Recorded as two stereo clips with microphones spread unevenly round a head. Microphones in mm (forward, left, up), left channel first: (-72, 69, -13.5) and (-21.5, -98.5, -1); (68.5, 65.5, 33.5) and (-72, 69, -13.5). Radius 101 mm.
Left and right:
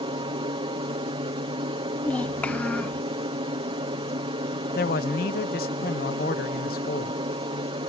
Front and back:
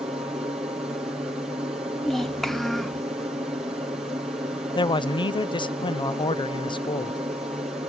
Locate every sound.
0.0 s an aircraft: 120° right
2.0 s a child speaking: 25° left
4.8 s a man speaking: 60° left